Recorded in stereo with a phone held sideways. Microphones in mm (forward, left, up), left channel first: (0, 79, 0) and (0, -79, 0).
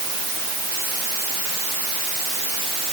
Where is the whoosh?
I don't hear a whoosh.